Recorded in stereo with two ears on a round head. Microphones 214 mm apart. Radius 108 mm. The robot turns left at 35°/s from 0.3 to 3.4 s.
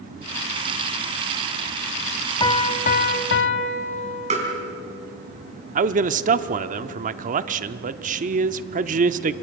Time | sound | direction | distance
2.4 | a piano | 160° left | 1.3 m
4.3 | tapping | 30° right (ahead or behind) | 4.5 m
5.8 | a man speaking | 35° right (ahead or behind) | 0.8 m